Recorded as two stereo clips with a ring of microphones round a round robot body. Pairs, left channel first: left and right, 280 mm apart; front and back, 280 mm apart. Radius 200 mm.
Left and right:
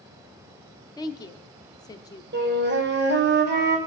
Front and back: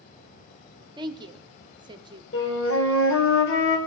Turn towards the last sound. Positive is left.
turn(degrees=-40)